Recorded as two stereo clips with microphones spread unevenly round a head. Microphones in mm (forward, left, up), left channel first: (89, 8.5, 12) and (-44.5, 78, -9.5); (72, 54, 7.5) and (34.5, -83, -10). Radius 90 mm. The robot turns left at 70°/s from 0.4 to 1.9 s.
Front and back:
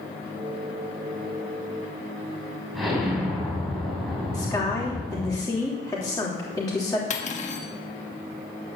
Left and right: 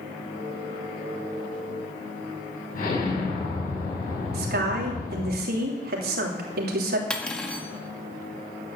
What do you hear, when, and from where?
2.7 s an explosion: 60° left, 6 m
4.3 s a woman speaking: 100° right, 3 m
7.1 s cutlery clinking: 5° right, 1.7 m